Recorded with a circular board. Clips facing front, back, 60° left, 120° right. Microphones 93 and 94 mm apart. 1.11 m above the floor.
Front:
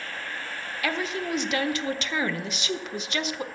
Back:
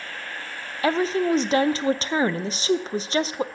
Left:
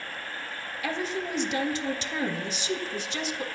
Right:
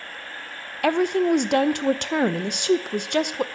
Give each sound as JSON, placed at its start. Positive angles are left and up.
{"t": 0.8, "sound": "a woman speaking", "azimuth_deg": -125, "distance_m": 0.5}